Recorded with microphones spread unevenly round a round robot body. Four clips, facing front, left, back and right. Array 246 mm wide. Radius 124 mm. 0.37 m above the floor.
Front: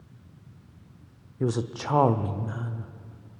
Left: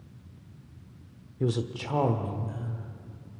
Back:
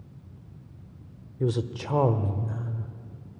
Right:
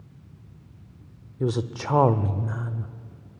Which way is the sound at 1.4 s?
125° right.